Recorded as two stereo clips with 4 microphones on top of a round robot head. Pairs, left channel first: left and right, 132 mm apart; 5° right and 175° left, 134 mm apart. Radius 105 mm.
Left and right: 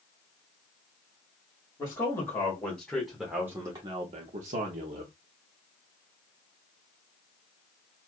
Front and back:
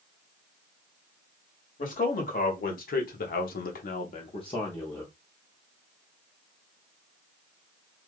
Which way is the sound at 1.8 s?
20° left.